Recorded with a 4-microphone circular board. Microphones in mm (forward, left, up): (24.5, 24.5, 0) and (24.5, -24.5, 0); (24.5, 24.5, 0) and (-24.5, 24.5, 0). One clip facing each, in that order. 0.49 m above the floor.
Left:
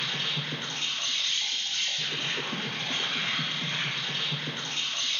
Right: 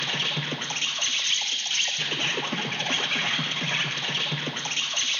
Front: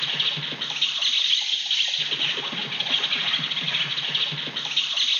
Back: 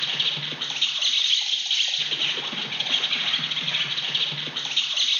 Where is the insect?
85° right, 1.0 m.